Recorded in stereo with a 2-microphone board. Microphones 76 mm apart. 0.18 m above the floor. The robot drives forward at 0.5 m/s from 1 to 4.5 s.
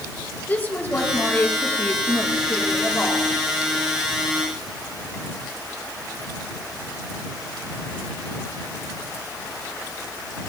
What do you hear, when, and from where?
0.5 s a woman speaking: 25° left (ahead or behind), 4 m; by 3.3 s 20° left (ahead or behind), 5.5 m